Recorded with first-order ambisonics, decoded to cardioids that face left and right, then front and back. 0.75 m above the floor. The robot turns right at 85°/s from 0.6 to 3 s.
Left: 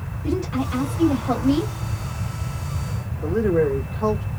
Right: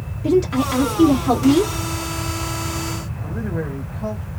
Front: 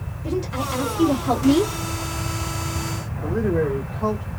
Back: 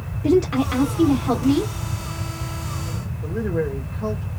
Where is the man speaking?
60° left, 2 m.